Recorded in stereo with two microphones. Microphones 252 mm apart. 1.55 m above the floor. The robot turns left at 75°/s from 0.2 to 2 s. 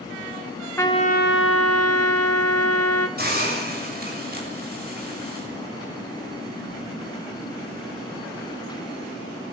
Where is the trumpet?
170° left, 1.5 m; by 3.1 s 80° left, 1.5 m.